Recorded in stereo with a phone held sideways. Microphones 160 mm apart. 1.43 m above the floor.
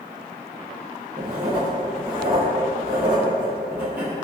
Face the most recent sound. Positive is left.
turn(degrees=-10)  # may be behind; listen again after turning